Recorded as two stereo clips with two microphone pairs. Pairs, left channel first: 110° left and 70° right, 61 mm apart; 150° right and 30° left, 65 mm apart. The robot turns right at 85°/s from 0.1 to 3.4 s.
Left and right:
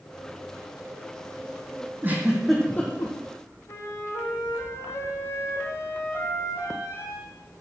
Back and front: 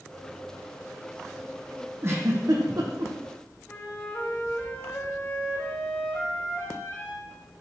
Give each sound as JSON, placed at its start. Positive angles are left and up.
{"t": 2.0, "sound": "a giggle", "azimuth_deg": -20, "distance_m": 2.5}
{"t": 3.7, "sound": "a flute", "azimuth_deg": 145, "distance_m": 3.5}